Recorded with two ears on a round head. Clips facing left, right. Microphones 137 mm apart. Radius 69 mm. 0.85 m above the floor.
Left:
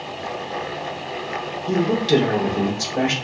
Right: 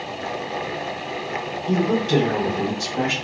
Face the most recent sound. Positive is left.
turn(degrees=65)  # may be behind; listen again after turning